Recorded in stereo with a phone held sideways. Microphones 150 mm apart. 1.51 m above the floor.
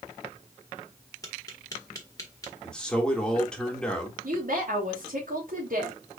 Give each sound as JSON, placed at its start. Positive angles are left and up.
{"t": 1.2, "sound": "tapping", "side_deg": 25, "distance_m": 1.5}
{"t": 2.6, "sound": "a man speaking", "side_deg": 5, "distance_m": 2.0}
{"t": 4.2, "sound": "a woman speaking", "side_deg": -75, "distance_m": 3.0}